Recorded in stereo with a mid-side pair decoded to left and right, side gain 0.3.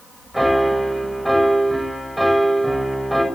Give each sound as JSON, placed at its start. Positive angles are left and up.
{"t": 0.3, "sound": "a piano", "azimuth_deg": -5, "distance_m": 6.0}